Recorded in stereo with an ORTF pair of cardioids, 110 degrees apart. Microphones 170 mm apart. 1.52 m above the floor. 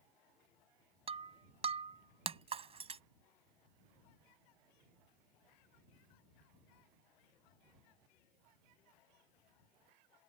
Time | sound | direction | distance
1.1 | breaking glass | 40° right | ?